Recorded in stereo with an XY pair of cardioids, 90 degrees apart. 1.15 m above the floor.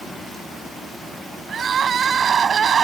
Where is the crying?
50° right.